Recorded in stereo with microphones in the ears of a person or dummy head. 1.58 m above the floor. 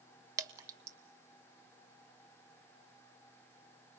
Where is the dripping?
20° right (ahead or behind), 1.2 m.